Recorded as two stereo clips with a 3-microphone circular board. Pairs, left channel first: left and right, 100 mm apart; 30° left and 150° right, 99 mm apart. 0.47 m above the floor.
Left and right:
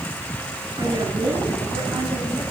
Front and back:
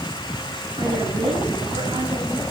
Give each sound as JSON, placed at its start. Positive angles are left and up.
{"t": 0.8, "sound": "a woman speaking", "azimuth_deg": -130, "distance_m": 8.0}